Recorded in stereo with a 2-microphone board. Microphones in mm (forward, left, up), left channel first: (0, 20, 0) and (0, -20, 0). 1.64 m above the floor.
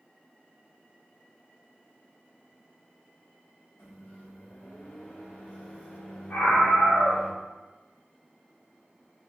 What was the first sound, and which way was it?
A microwave, 60° left (ahead or behind).